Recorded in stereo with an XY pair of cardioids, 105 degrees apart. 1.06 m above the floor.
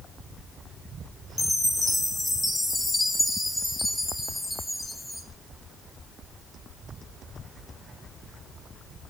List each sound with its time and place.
1.4 s a chime: 20° left, 1.7 m